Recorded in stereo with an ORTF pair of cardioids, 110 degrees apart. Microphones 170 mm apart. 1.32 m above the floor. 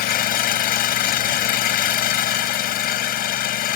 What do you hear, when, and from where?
0.0 s an engine running: 70° left